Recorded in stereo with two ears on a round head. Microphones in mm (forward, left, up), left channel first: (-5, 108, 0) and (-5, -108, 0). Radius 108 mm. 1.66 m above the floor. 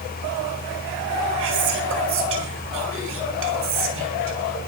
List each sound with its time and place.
1.4 s whispering: 55° right (ahead or behind), 9 m